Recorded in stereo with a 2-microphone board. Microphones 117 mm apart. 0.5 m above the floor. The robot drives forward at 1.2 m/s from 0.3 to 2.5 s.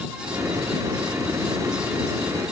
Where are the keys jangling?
I don't hear keys jangling.